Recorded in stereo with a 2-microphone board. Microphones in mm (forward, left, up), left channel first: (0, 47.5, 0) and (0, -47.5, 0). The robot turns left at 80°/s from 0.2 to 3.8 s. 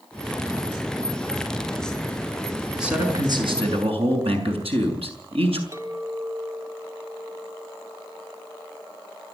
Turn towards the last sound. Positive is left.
turn(degrees=-35)  # may be behind; listen again after turning